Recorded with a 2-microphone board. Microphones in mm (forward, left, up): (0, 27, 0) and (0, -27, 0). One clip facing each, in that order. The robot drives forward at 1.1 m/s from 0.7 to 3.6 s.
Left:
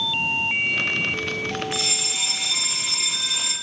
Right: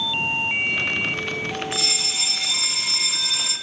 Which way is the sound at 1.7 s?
20° left (ahead or behind).